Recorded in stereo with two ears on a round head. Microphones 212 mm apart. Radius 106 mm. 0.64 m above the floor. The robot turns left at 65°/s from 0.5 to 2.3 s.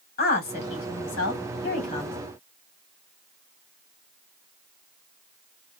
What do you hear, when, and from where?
0.2 s a woman speaking: 40° left (ahead or behind), 1.8 m; by 2.2 s 20° left (ahead or behind), 1.8 m